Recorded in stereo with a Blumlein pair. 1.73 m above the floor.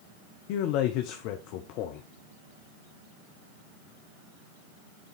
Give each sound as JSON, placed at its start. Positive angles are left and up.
{"t": 0.5, "sound": "a man speaking", "azimuth_deg": 45, "distance_m": 0.9}